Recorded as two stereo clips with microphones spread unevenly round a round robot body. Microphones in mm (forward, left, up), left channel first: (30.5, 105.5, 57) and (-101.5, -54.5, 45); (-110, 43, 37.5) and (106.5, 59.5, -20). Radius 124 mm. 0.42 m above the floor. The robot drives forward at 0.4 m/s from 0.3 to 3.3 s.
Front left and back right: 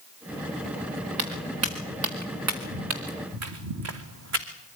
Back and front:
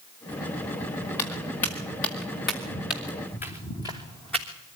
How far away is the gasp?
I don't hear a gasp.